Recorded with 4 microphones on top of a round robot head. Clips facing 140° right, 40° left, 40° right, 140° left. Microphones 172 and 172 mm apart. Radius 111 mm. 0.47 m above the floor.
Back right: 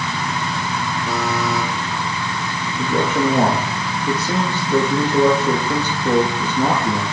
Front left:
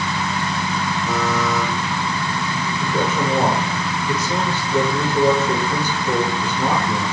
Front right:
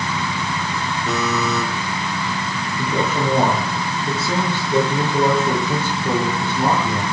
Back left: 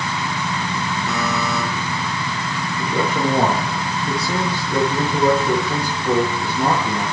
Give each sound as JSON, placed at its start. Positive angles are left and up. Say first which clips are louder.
{"t": 1.1, "sound": "a buzzer", "louder": "even, front right 3 dB", "azimuth_deg": -70, "distance_m": 7.0}
{"t": 2.8, "sound": "a man speaking", "louder": "back right 4 dB, even", "azimuth_deg": -105, "distance_m": 8.0}